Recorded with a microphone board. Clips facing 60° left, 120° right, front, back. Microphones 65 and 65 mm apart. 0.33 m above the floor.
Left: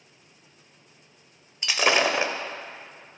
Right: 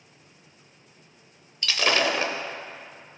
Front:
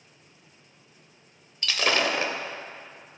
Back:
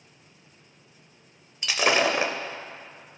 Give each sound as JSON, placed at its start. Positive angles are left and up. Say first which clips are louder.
{"t": 1.6, "sound": "breaking glass", "louder": "left 1 dB, back 2 dB", "azimuth_deg": 120, "distance_m": 0.5}